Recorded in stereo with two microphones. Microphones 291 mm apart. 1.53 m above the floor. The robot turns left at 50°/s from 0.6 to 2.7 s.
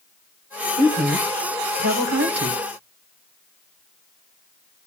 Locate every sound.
0.8 s a woman speaking: 35° right (ahead or behind), 1.3 m; by 2.6 s 55° right (ahead or behind), 1.3 m